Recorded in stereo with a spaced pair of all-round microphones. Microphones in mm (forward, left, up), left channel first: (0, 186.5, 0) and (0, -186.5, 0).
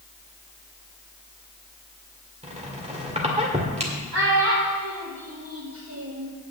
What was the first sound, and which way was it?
A squeak, 15° right (ahead or behind).